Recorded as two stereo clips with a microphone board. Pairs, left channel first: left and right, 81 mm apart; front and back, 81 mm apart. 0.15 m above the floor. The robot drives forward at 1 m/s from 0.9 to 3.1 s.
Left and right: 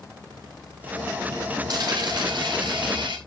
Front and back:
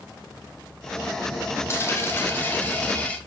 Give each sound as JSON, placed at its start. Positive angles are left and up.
{"t": 1.7, "sound": "a dropped coin", "azimuth_deg": -60, "distance_m": 4.5}